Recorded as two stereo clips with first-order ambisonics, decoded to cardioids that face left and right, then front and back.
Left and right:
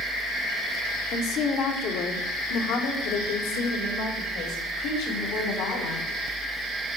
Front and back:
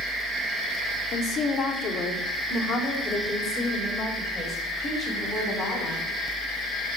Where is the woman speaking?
50° left, 1.6 m; by 6.1 s 85° left, 4.5 m.